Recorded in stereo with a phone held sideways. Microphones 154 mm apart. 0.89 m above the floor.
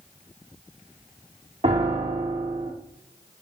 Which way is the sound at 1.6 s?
40° right (ahead or behind).